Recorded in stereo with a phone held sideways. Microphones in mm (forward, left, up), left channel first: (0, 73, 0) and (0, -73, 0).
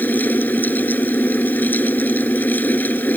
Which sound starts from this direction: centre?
A fan, at 0.0 s.